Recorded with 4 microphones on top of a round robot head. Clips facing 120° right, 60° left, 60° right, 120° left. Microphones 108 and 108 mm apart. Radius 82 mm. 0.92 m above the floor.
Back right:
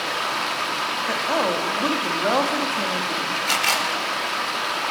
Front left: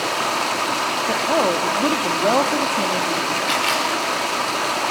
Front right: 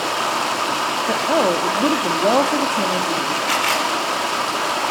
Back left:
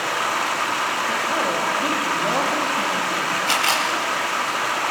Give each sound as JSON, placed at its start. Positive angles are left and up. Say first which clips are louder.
{"t": 0.0, "sound": "running water", "louder": "front left 4 dB, front right 2 dB", "azimuth_deg": 10, "distance_m": 1.4}
{"t": 1.1, "sound": "a woman speaking", "louder": "front left 4 dB, front right 9 dB", "azimuth_deg": -10, "distance_m": 1.3}
{"t": 3.5, "sound": "a camera shutter", "louder": "front left 1 dB, front right 1 dB", "azimuth_deg": -175, "distance_m": 4.0}